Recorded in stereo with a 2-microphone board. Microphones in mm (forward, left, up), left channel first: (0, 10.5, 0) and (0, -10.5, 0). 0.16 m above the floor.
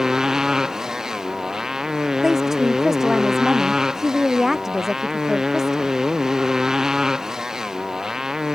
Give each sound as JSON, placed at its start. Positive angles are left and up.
{"t": 0.0, "sound": "a motorcycle", "side_deg": -30}
{"t": 2.2, "sound": "a woman speaking", "side_deg": -15}